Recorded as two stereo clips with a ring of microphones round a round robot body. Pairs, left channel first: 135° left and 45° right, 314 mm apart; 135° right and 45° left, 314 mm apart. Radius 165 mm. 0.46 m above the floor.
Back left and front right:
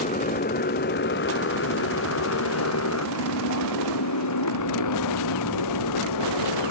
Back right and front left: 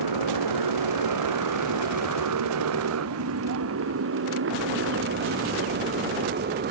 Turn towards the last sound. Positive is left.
turn(degrees=105)